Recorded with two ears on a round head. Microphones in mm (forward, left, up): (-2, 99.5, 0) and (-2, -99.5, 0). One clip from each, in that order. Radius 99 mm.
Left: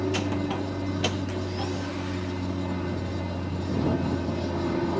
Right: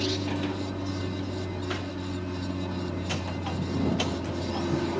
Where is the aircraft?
5° left (ahead or behind).